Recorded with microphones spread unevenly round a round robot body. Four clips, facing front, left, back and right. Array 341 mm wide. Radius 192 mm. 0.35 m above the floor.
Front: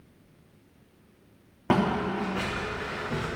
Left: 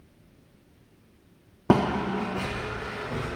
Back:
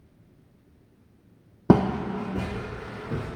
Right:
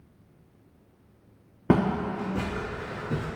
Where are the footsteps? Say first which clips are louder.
Left 1 dB, back 4 dB; straight behind, 1.2 m; by 3.3 s 135° right, 2.0 m.